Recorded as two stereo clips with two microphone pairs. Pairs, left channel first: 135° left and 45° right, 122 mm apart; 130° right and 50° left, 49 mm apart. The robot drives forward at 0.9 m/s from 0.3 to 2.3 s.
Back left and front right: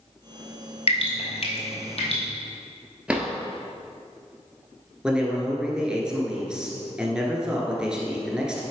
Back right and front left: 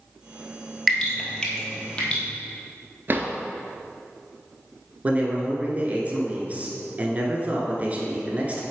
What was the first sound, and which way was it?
Dripping, 145° left.